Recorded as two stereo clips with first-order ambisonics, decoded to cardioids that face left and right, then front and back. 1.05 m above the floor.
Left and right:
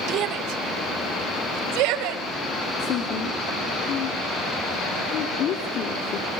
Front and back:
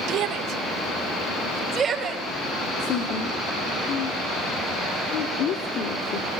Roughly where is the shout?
Behind right.